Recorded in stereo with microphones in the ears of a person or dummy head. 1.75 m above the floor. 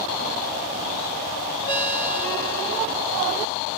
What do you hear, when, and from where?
1.7 s a ringtone: 55° left (ahead or behind), 4 m